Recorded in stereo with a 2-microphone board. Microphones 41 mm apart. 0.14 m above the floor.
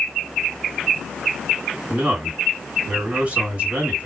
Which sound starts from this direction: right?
A man speaking, at 1.9 s.